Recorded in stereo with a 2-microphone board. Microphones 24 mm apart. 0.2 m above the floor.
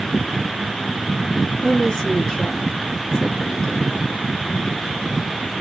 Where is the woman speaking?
35° left (ahead or behind), 2.5 m.